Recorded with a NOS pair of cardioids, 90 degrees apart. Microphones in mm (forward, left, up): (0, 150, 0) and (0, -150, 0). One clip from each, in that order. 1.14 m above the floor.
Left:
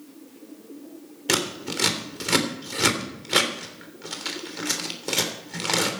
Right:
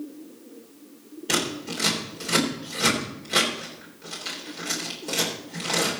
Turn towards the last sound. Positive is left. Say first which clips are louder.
# left 1 dB
turn(degrees=50)